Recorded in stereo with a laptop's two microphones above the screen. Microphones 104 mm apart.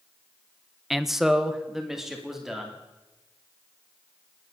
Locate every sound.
0.9 s a man speaking: centre (ahead or behind), 0.6 m; by 2.8 s 5° right (ahead or behind), 3 m